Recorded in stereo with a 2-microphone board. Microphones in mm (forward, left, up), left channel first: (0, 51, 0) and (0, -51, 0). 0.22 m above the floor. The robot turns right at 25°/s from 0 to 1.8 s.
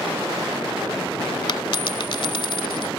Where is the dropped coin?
50° left (ahead or behind); by 2.9 s 55° left (ahead or behind).